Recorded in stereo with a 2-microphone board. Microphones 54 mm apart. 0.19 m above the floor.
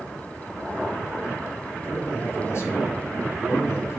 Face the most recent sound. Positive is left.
turn(degrees=55)  # may be behind; listen again after turning